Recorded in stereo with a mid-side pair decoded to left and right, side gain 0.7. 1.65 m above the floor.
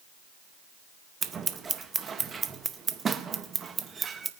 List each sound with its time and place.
1.2 s scissors: 30° right, 1.0 m